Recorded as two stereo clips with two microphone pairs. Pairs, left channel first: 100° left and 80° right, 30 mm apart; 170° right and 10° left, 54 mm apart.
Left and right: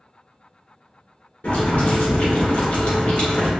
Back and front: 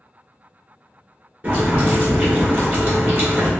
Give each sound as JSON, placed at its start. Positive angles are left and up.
{"t": 1.4, "sound": "boiling", "azimuth_deg": 70, "distance_m": 1.4}